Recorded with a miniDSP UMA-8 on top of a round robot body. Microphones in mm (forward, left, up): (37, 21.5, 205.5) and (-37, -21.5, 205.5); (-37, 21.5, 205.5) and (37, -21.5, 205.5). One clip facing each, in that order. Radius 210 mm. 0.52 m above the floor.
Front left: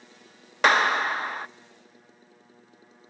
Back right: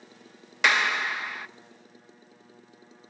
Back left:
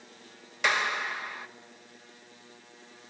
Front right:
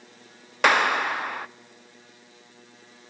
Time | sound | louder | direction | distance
0.6 | a clap | front left 4 dB, front right 8 dB | 10° right | 0.8 m